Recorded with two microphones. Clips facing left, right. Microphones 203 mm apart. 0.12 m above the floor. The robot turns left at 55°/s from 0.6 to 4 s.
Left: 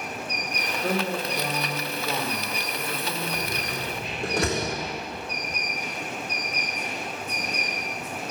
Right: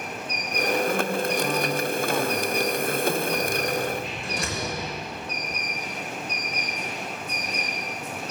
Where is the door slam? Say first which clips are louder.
Right 6 dB; 30° left (ahead or behind), 5 m; by 4.8 s 65° left (ahead or behind), 5 m.